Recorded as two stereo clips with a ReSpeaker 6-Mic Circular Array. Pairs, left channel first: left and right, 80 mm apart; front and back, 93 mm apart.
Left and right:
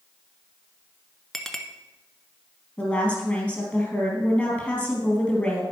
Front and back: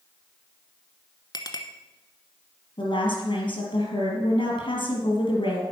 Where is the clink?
5° left, 1.0 m.